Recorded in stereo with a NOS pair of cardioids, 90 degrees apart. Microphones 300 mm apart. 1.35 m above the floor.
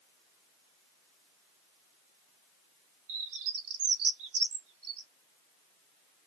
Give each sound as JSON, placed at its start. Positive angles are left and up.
{"t": 3.1, "sound": "a bird", "azimuth_deg": -70, "distance_m": 3.5}